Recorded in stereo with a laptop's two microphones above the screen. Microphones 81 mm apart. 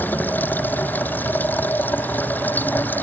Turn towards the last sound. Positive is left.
turn(degrees=25)  # may be behind; listen again after turning